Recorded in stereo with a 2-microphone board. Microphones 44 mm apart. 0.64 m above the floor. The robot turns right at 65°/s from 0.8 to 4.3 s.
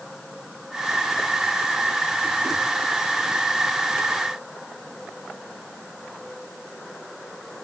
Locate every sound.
Only background noise.